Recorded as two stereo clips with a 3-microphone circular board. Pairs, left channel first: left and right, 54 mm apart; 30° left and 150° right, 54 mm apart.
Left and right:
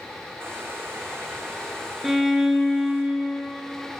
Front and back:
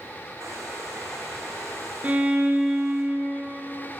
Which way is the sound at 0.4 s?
130° right.